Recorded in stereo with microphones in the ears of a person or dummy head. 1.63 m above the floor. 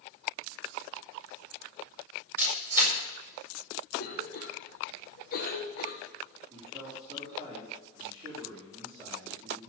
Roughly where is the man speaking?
Right.